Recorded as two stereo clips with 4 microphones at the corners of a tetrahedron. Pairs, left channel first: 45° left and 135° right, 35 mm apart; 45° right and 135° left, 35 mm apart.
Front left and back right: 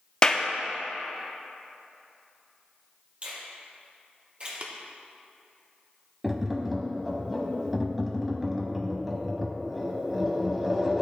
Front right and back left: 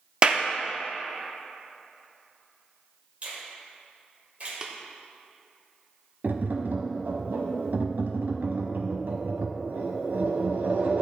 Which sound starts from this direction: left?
A clap, at 0.2 s.